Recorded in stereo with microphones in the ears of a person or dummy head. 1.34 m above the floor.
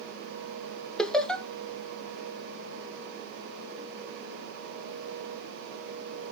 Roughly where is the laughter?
Centre.